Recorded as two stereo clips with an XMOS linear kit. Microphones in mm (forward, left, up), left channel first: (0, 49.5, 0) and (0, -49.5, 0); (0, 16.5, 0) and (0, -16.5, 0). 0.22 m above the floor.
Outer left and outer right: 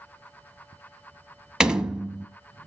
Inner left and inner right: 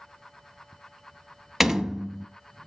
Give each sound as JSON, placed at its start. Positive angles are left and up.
{"t": 1.6, "sound": "a door slam", "side_deg": -10, "distance_m": 0.9}